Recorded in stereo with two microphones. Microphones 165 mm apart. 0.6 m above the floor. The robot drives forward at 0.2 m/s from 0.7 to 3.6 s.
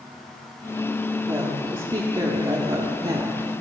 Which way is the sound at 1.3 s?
25° right (ahead or behind).